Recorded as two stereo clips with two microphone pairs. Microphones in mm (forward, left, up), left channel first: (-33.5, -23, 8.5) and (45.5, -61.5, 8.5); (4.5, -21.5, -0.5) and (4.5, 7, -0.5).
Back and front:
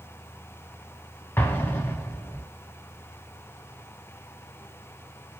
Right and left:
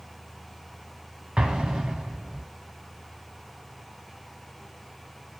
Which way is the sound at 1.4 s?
120° left.